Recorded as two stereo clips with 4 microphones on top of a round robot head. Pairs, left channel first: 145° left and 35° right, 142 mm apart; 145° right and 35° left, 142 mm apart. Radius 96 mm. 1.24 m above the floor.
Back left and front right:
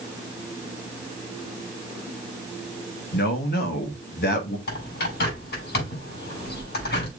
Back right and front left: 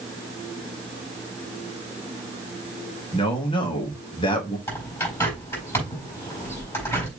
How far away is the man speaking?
About 1.9 m.